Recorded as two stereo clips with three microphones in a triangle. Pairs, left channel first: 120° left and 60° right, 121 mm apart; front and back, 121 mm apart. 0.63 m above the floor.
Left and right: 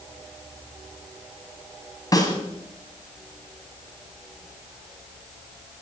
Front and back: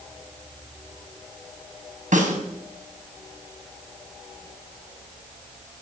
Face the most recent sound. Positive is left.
turn(degrees=180)